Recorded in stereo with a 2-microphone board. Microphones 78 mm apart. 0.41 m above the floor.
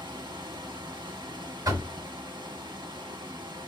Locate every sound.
0.0 s running water: 75° right (ahead or behind), 0.8 m
1.6 s knocking: 55° right (ahead or behind), 1.7 m